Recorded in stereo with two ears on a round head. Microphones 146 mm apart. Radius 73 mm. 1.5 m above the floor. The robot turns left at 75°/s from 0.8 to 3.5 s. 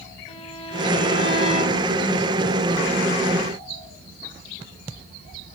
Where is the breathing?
No breathing in this recording.